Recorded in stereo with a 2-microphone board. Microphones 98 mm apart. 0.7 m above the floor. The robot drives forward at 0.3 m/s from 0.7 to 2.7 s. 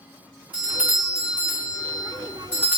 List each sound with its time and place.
0.5 s a doorbell: 15° right (ahead or behind), 1.4 m; by 2.8 s 20° right (ahead or behind), 1.2 m